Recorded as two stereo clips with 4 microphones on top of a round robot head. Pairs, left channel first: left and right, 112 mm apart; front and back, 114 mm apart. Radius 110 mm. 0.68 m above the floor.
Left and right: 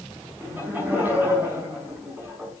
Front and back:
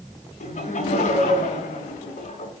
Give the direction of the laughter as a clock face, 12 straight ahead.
12 o'clock.